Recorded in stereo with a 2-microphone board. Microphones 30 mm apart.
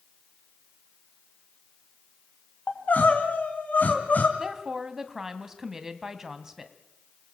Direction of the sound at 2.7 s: 65° left (ahead or behind).